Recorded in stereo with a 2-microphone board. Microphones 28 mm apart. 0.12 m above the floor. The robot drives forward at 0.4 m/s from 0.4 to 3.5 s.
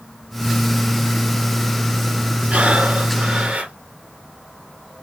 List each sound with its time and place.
2.5 s breathing: 55° right (ahead or behind), 3 m